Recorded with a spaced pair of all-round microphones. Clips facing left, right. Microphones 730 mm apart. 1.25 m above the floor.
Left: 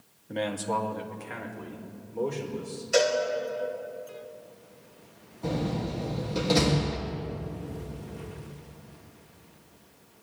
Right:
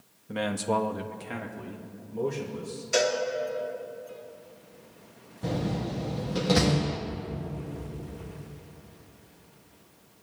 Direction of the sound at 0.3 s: 40° right (ahead or behind).